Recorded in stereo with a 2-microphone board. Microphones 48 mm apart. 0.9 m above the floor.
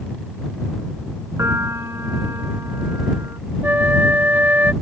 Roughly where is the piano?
Right.